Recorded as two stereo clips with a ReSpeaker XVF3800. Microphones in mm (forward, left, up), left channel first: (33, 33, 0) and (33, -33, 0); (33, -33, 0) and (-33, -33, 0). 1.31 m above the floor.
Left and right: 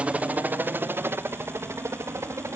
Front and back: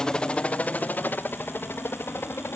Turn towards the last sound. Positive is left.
turn(degrees=-50)